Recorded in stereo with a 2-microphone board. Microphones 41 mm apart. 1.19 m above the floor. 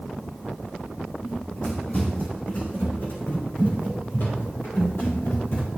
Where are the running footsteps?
35° left (ahead or behind), 3.5 m; by 5.7 s 65° left (ahead or behind), 5.5 m.